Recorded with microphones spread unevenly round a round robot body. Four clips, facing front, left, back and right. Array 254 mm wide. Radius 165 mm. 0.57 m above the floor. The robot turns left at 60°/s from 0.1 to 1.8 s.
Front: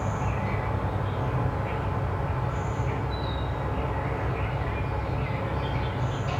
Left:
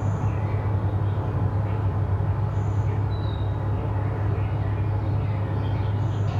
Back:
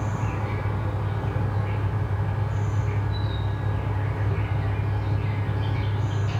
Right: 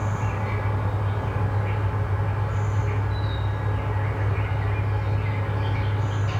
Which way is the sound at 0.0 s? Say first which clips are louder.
Right 1 dB, front 1 dB; straight behind.